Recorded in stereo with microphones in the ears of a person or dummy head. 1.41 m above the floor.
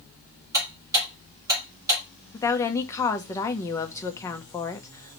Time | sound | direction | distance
0.5 | ticking | 15° right (ahead or behind) | 2 m
2.3 | a woman speaking | 20° left (ahead or behind) | 0.8 m